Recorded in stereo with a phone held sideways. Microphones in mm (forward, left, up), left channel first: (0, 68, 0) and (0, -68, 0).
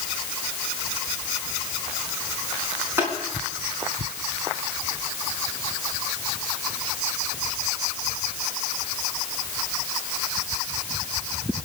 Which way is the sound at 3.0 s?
15° right (ahead or behind).